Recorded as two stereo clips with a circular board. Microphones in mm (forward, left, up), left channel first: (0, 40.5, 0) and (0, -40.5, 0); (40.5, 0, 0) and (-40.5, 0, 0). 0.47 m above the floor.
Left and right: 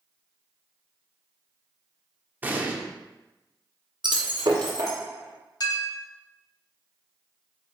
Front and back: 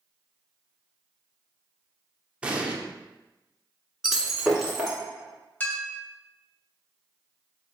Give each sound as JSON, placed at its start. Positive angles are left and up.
{"t": 2.4, "sound": "an explosion", "azimuth_deg": -120, "distance_m": 0.6}
{"t": 4.0, "sound": "breaking glass", "azimuth_deg": -95, "distance_m": 1.5}
{"t": 5.6, "sound": "a clink", "azimuth_deg": 70, "distance_m": 1.8}